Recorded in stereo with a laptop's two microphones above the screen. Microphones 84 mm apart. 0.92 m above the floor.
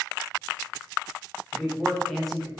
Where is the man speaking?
5° left (ahead or behind), 0.8 m.